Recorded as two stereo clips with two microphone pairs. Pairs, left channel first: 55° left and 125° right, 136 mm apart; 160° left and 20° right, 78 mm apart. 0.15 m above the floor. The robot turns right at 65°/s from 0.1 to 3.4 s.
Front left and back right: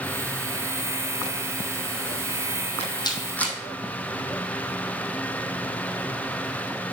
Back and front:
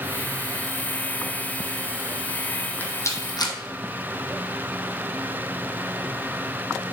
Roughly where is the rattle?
Left.